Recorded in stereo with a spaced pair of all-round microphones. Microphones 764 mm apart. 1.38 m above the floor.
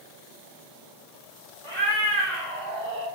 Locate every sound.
1.6 s a cat meowing: 45° left (ahead or behind), 0.9 m